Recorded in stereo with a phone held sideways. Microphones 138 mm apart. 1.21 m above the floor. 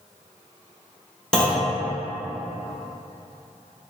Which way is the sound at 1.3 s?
5° left (ahead or behind).